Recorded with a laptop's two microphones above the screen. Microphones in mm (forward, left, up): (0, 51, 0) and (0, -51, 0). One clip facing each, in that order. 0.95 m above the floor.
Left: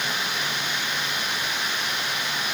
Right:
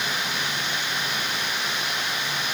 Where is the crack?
I don't hear a crack.